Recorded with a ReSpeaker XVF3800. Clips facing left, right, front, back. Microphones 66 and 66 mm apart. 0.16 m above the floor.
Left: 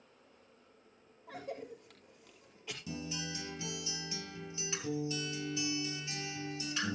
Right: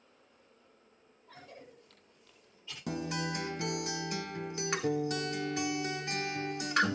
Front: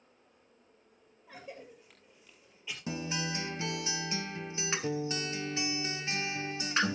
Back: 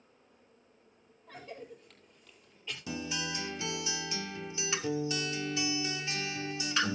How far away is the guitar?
About 1.1 m.